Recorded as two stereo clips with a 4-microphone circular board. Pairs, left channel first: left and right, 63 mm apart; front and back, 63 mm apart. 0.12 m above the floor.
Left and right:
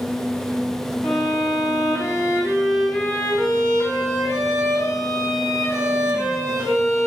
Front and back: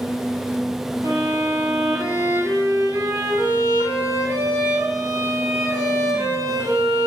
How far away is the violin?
About 5 m.